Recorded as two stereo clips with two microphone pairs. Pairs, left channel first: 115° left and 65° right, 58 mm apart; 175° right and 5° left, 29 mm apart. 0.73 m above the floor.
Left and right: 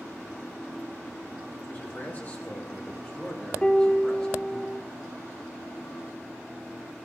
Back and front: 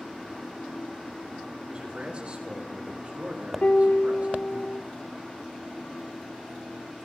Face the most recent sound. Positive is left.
turn(degrees=-175)